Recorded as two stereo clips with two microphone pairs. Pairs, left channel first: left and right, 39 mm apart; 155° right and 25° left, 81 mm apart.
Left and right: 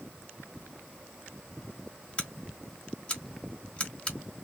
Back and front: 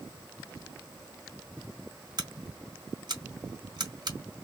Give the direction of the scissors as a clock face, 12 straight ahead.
11 o'clock.